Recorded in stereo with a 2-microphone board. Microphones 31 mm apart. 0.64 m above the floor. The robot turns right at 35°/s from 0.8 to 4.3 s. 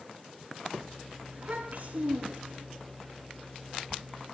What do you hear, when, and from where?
1.3 s a child speaking: 145° right, 4.5 m; by 2.7 s 95° right, 4.5 m